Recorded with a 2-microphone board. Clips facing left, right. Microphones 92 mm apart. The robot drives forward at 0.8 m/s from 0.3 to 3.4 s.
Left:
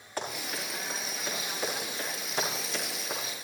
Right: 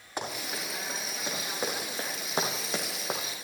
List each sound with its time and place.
0.2 s running footsteps: 20° right (ahead or behind), 5.5 m; by 3.2 s 60° right (ahead or behind), 2 m